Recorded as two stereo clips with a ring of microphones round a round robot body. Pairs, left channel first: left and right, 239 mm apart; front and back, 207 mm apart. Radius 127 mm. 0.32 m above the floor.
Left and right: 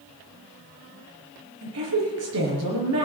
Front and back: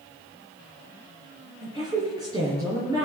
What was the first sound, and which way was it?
A woman speaking, 105° right.